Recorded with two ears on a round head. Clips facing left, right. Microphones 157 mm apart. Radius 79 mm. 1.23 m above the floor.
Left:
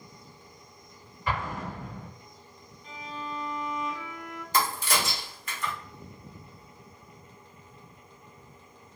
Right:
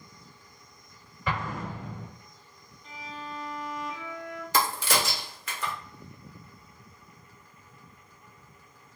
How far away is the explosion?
About 1.2 m.